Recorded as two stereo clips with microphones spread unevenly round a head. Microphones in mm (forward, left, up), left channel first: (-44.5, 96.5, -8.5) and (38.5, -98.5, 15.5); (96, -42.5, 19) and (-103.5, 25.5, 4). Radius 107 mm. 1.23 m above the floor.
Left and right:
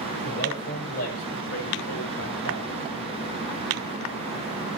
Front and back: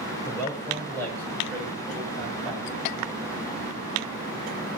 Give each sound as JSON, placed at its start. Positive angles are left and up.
{"t": 0.2, "sound": "a man speaking", "azimuth_deg": 60, "distance_m": 7.0}